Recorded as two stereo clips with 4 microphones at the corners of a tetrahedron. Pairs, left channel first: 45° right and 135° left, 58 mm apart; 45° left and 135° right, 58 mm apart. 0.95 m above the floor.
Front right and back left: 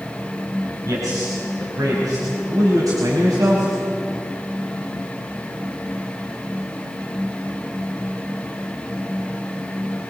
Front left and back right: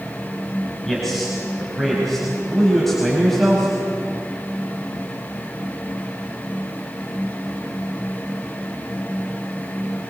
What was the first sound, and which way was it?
A man speaking, 130° left.